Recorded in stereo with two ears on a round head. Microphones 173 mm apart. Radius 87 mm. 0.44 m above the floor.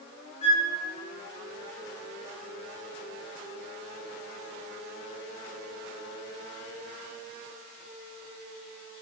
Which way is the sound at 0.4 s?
35° left (ahead or behind).